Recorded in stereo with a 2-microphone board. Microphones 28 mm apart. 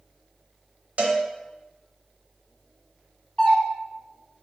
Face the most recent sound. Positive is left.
turn(degrees=30)  # may be behind; listen again after turning